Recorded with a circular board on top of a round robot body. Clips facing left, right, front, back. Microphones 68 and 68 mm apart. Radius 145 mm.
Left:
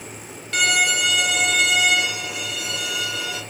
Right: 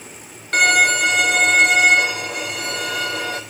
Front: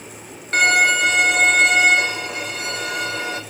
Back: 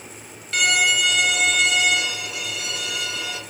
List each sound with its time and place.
0.5 s a violin: 50° right, 0.6 m